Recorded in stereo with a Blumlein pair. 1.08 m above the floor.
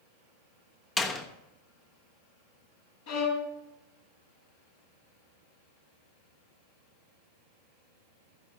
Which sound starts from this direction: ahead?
A door slam, at 1.0 s.